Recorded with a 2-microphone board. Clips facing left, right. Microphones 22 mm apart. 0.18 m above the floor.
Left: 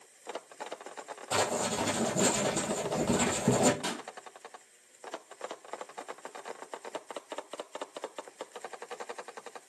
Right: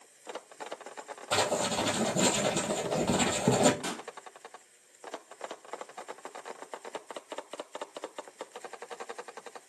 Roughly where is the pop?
Centre.